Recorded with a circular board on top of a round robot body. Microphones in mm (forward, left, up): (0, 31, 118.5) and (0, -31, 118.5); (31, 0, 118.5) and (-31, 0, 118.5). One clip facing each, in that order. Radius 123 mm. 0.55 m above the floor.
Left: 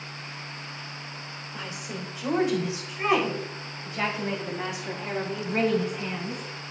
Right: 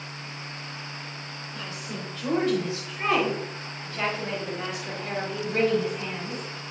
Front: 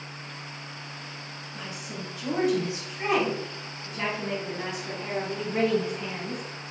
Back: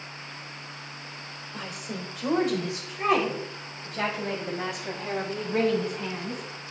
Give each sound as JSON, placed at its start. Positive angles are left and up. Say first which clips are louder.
{"t": 1.5, "sound": "a woman speaking", "louder": "left 1 dB, back 2 dB", "azimuth_deg": 165, "distance_m": 3.0}